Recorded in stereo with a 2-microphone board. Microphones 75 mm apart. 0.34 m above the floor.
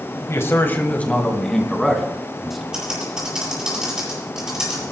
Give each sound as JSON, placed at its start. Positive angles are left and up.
{"t": 0.3, "sound": "a man speaking", "side_deg": 40, "distance_m": 2.0}
{"t": 2.7, "sound": "typing on a keyboard", "side_deg": -10, "distance_m": 7.5}